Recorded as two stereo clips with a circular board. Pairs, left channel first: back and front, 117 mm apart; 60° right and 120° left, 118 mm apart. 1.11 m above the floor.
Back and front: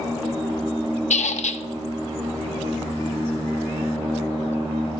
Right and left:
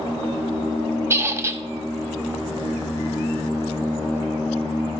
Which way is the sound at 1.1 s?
175° right.